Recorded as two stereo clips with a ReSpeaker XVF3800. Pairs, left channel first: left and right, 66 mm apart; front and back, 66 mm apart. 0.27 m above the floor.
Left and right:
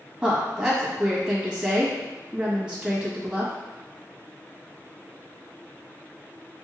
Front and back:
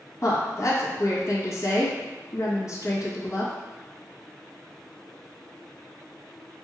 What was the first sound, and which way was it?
A woman speaking, 15° right.